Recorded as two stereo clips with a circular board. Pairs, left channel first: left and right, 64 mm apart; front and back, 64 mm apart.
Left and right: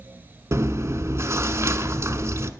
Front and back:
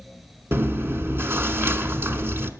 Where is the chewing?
130° right, 0.8 m.